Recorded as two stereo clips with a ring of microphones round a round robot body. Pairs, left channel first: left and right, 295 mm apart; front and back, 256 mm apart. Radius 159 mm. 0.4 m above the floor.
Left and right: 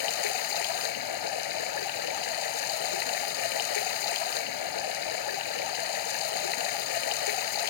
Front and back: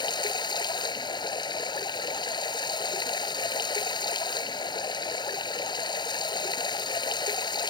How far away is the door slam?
No door slam in this recording.